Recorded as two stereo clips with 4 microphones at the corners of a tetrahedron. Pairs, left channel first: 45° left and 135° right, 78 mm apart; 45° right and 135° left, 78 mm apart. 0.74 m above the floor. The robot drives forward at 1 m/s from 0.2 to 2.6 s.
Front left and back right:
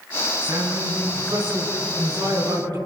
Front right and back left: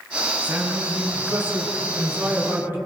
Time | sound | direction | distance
0.4 | a man speaking | 155° right | 7.5 m